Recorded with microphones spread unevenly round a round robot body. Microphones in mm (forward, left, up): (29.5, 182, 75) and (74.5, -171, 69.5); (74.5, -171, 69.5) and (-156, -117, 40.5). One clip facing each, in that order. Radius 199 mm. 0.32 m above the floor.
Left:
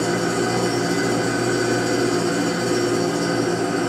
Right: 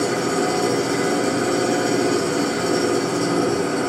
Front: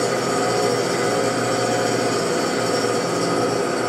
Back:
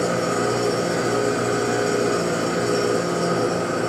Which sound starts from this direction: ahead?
An engine running, at 0.0 s.